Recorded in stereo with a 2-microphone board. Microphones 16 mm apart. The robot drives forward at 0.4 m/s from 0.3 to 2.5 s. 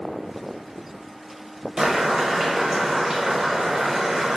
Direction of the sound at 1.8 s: 40° right (ahead or behind).